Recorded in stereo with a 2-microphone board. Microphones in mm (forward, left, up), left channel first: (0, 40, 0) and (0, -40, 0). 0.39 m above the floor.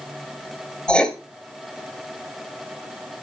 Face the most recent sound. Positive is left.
turn(degrees=10)  # may be behind; listen again after turning